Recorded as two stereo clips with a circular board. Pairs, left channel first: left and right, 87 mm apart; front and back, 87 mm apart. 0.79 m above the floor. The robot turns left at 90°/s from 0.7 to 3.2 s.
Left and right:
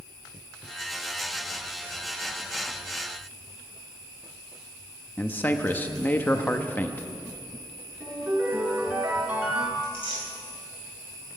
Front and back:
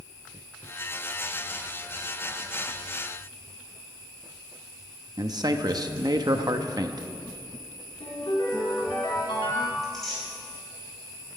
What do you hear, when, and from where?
5.2 s a man speaking: 155° left, 0.8 m
8.0 s a ringtone: 20° right, 3.5 m
9.8 s tearing paper: 85° left, 5.5 m